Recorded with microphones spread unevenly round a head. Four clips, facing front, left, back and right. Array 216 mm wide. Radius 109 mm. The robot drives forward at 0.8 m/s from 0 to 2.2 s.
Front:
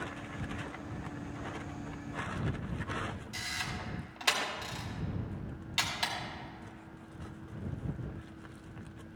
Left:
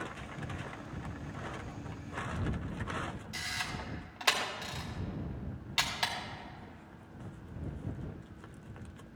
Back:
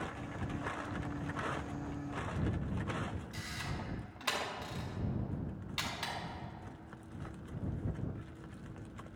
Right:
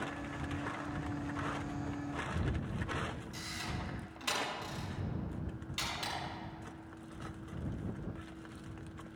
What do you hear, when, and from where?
3.3 s a camera shutter: 65° left, 2.5 m